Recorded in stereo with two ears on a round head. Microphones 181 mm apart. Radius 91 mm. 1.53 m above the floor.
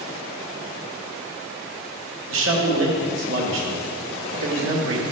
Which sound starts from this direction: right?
A man speaking, at 2.3 s.